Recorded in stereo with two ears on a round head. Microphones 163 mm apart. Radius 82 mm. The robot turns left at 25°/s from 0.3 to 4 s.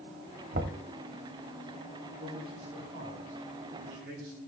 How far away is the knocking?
About 1.6 m.